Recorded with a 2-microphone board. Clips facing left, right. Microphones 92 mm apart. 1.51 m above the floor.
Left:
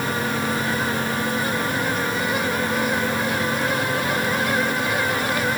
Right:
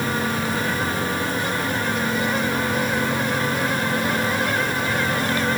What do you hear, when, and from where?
Only background noise.